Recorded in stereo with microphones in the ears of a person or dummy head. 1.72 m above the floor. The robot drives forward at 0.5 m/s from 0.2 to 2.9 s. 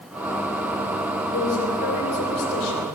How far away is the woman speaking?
About 7.5 m.